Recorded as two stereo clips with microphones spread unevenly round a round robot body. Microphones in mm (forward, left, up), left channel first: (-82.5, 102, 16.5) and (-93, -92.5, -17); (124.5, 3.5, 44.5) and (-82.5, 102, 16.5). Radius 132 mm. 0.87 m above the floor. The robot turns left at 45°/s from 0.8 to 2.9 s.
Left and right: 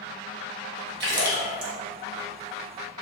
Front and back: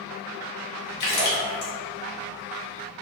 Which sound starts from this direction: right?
A splash, at 1.0 s.